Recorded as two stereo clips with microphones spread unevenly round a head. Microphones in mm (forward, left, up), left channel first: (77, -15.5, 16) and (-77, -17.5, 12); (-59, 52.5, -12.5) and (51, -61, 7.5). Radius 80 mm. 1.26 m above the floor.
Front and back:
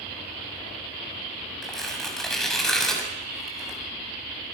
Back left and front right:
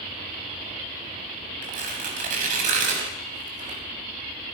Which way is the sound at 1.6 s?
85° right.